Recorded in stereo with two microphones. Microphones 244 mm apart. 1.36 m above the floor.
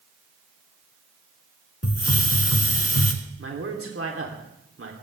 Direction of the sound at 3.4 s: 60° right (ahead or behind).